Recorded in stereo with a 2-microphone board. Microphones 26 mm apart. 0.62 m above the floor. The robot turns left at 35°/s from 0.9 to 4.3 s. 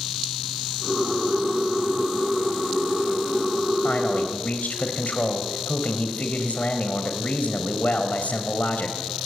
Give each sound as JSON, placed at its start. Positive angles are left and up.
{"t": 3.8, "sound": "a man speaking", "side_deg": 75, "distance_m": 3.5}